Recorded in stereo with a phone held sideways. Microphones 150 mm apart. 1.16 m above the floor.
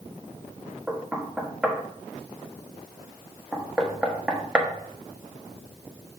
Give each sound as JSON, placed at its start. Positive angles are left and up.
{"t": 0.9, "sound": "knocking", "side_deg": -5, "distance_m": 1.1}